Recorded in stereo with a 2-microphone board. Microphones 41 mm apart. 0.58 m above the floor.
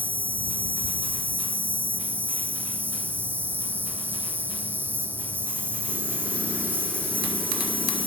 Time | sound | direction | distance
0.0 | an insect | 55° right (ahead or behind) | ?